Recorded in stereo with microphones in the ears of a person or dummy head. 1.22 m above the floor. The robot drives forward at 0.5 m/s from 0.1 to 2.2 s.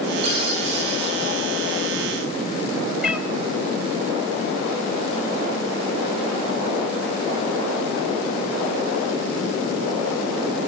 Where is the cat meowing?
10° right (ahead or behind), 2.5 m.